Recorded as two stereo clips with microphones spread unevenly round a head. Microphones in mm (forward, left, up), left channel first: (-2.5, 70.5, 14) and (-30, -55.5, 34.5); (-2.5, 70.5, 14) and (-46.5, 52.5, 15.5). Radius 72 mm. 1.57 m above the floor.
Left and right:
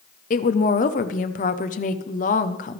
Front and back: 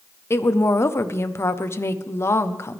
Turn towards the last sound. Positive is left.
turn(degrees=50)